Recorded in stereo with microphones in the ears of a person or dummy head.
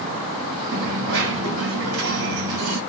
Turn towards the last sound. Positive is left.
turn(degrees=-60)  # may be behind; listen again after turning